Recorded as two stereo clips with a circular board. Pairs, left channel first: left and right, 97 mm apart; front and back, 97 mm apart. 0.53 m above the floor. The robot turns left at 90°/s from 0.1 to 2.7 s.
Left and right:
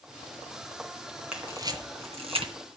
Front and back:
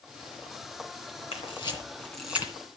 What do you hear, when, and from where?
1.3 s a camera shutter: 10° right, 2.5 m; by 2.5 s 120° right, 2.5 m